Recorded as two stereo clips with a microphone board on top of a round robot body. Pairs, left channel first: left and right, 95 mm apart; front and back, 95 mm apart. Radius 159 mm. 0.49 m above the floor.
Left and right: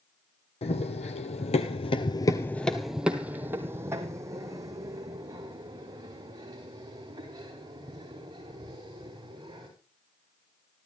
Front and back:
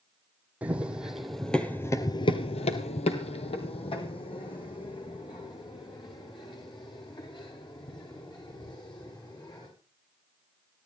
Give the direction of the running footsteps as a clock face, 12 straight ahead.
9 o'clock.